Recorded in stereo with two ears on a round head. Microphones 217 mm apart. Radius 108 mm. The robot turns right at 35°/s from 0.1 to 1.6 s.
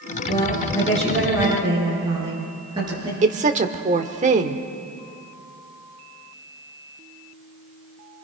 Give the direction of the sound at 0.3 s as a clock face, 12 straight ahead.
7 o'clock.